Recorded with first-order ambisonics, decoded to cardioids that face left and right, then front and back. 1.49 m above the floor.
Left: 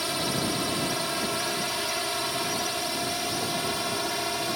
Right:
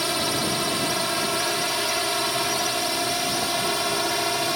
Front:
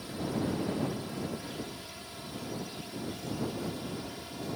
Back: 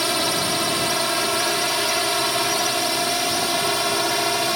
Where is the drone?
165° right; by 4.6 s 160° right.